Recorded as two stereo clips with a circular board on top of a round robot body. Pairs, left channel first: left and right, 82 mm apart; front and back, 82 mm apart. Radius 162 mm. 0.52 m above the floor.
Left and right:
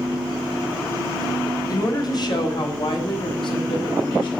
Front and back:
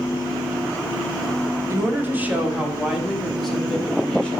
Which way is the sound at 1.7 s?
125° left.